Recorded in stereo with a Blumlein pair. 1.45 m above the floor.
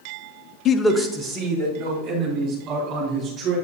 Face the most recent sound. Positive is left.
turn(degrees=-30)